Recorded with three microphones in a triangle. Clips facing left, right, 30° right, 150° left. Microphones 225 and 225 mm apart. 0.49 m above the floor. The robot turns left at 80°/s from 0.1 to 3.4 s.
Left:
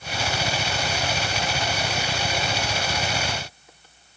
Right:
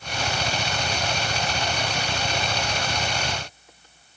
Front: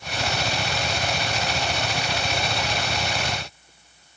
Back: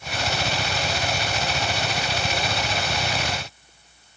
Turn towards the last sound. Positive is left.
No sound to turn to.